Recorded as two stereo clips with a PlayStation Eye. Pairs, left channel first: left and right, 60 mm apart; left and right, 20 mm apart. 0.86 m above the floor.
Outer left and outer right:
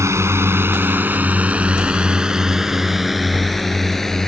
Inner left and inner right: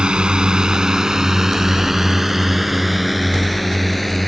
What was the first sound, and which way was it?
A drone, 50° right (ahead or behind).